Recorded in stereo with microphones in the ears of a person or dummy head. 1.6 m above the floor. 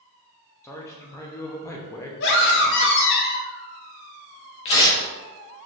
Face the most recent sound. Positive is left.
turn(degrees=35)  # may be behind; listen again after turning